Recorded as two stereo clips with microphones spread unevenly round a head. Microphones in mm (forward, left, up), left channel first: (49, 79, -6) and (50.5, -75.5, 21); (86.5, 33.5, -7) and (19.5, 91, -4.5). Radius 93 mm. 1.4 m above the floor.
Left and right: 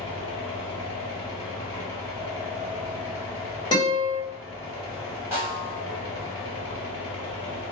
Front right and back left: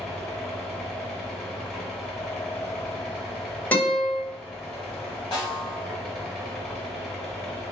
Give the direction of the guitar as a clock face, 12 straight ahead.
11 o'clock.